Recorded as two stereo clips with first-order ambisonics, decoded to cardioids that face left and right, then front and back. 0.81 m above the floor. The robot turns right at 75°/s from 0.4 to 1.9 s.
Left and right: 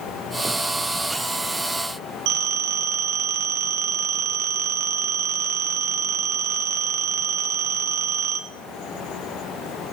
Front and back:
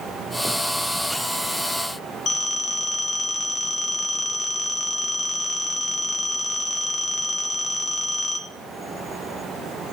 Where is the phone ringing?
60° right, 1.6 m.